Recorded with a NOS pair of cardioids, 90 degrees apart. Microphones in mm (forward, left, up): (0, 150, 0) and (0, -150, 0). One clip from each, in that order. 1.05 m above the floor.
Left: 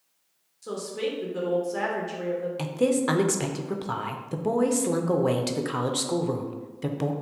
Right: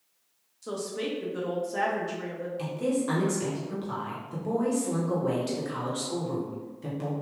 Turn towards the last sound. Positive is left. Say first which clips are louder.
# left 4 dB
turn(degrees=50)